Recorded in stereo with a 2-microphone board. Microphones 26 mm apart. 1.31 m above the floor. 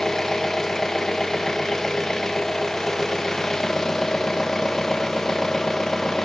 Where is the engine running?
20° left (ahead or behind), 1.0 m.